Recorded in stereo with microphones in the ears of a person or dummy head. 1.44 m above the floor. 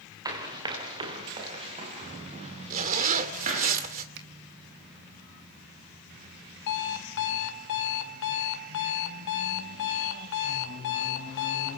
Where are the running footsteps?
15° right (ahead or behind), 6.5 m; by 3.7 s 40° right (ahead or behind), 9.5 m.